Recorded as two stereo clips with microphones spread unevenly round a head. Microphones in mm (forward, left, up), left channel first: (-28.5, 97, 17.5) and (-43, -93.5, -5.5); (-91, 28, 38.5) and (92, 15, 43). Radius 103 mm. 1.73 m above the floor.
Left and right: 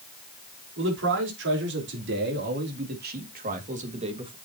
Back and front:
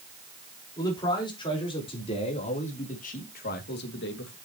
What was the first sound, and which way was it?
A man speaking, 115° right.